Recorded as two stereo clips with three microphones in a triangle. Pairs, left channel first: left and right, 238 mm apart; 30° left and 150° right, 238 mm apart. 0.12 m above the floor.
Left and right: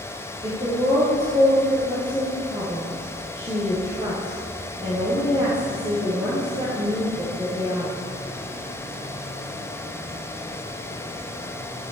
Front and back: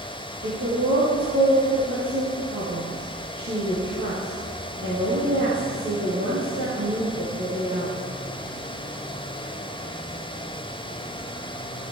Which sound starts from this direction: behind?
A woman speaking, at 0.4 s.